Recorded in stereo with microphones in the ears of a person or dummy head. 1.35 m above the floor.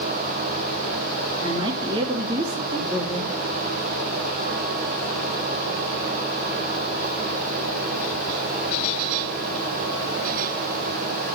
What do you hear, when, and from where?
1.4 s a woman speaking: 25° right (ahead or behind), 3 m